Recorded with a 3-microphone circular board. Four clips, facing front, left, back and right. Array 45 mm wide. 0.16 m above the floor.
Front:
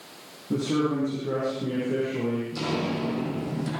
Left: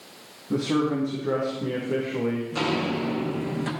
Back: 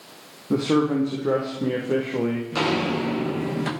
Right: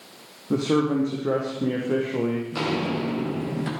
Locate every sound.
0.5 s a man speaking: 145° right, 6.5 m
2.5 s footsteps: 175° right, 9 m